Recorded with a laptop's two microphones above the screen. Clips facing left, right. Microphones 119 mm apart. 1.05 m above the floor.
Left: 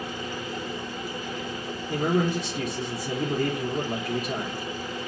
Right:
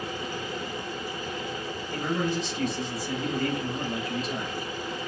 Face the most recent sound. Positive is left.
turn(degrees=70)  # may be behind; listen again after turning